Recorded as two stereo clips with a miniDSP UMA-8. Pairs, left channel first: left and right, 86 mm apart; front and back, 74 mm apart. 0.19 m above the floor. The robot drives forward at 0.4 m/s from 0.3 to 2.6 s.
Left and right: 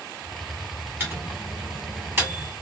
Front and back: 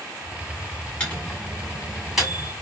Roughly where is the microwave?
Ahead right.